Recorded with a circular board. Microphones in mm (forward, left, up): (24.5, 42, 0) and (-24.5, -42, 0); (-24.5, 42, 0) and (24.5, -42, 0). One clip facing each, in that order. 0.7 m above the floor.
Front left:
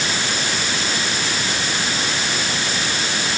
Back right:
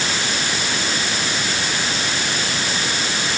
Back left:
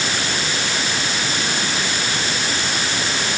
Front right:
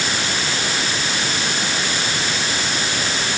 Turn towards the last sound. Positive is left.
No sound to turn to.